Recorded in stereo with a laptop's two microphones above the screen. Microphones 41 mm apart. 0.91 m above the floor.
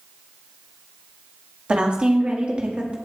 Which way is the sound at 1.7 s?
25° right (ahead or behind).